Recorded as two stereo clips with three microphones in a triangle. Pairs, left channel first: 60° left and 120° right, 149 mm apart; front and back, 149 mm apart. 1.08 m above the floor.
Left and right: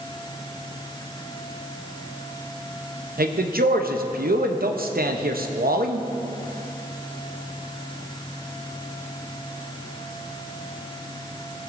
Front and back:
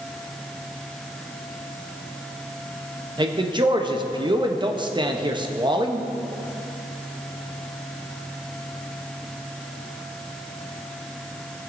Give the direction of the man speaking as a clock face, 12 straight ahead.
4 o'clock.